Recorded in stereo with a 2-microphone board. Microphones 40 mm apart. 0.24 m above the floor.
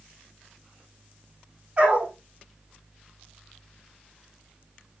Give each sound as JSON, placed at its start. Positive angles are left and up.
{"t": 1.8, "sound": "a dog barking", "side_deg": -25, "distance_m": 4.0}